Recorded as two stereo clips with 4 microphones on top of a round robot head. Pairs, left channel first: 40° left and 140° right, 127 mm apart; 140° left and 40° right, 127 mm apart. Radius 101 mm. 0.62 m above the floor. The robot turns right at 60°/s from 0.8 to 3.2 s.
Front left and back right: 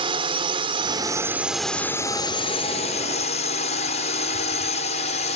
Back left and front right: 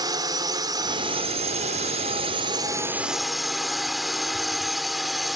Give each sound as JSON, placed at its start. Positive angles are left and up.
{"t": 0.0, "sound": "a drone", "azimuth_deg": -95}